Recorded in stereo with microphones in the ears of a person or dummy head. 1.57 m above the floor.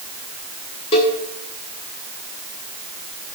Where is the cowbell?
25° left (ahead or behind), 1.1 m.